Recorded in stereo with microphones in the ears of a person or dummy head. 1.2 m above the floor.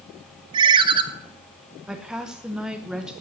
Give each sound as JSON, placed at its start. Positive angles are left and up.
{"t": 0.5, "sound": "a ringtone", "side_deg": -30, "distance_m": 0.7}
{"t": 1.9, "sound": "a woman speaking", "side_deg": -5, "distance_m": 0.8}